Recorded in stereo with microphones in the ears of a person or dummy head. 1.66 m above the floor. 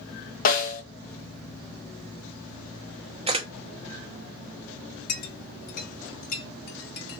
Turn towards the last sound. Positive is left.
turn(degrees=60)  # may be behind; listen again after turning